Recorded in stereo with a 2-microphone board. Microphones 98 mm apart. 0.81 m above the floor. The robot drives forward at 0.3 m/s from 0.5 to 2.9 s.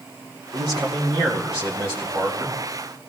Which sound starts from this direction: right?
A man speaking, at 0.5 s.